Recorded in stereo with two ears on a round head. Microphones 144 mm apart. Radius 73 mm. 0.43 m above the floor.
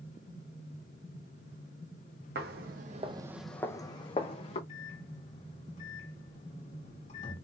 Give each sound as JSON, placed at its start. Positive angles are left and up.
{"t": 2.4, "sound": "footsteps", "side_deg": -70, "distance_m": 1.1}
{"t": 4.7, "sound": "a microwave", "side_deg": 45, "distance_m": 2.5}